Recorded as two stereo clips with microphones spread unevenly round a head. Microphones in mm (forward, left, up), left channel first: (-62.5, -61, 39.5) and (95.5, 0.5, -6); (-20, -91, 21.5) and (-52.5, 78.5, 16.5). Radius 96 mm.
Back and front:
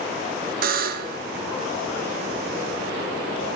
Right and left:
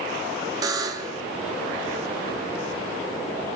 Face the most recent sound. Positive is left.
turn(degrees=35)